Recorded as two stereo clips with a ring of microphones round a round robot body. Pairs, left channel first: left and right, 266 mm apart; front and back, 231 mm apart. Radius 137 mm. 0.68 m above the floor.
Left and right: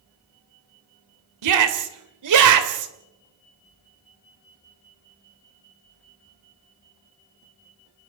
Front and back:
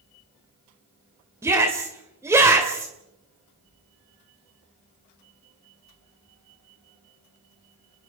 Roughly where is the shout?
Right.